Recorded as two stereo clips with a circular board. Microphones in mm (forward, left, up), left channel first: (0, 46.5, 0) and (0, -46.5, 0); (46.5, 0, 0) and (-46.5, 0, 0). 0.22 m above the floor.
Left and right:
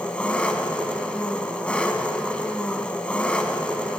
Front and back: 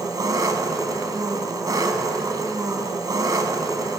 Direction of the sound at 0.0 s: 160° left.